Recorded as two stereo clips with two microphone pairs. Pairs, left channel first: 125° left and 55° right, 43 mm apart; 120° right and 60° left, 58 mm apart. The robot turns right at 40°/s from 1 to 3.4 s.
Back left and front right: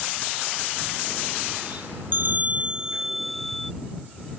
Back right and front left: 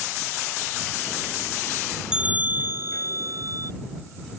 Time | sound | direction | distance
2.1 | a bell | 15° right | ?